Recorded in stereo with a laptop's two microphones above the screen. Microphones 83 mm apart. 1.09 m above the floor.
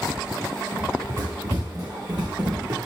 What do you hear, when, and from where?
0.7 s running footsteps: 40° right (ahead or behind), 7 m; by 2.8 s 60° right (ahead or behind), 5 m